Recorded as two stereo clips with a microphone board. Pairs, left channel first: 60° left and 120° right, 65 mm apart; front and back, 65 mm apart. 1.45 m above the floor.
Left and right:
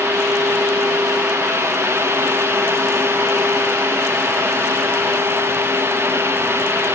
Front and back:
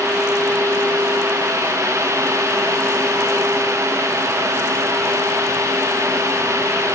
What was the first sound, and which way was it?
Only background noise.